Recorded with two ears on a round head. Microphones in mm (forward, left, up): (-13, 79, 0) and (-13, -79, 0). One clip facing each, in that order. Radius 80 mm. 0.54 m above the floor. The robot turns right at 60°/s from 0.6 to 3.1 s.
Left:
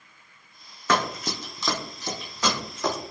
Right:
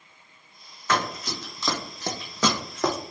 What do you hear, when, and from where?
0.9 s running footsteps: 70° left (ahead or behind), 1.7 m; by 2.9 s 35° right (ahead or behind), 1.7 m